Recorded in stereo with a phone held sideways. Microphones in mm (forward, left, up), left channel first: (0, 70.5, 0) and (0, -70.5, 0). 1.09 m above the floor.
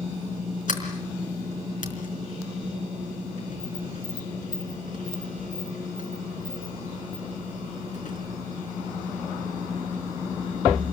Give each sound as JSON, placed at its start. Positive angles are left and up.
{"t": 0.7, "sound": "a sliding door", "side_deg": 65, "distance_m": 4.0}